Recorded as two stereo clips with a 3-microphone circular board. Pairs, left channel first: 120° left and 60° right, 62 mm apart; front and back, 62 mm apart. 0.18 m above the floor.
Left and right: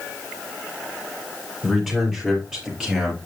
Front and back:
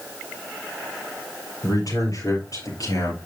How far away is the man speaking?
About 5 m.